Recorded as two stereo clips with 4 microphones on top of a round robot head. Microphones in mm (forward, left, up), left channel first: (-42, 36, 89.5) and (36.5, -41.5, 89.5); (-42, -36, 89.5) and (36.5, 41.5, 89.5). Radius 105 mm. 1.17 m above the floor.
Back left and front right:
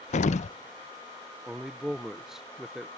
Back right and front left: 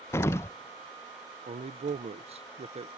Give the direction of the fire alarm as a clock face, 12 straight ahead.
I don't hear a fire alarm.